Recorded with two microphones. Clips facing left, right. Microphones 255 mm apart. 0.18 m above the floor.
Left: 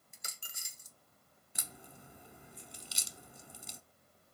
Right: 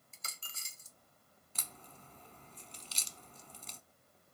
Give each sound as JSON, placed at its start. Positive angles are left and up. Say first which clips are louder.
{"t": 0.1, "sound": "a dropped coin", "louder": "even", "side_deg": 15, "distance_m": 0.6}
{"t": 1.6, "sound": "a crack", "louder": "left 2 dB", "side_deg": 10, "distance_m": 0.8}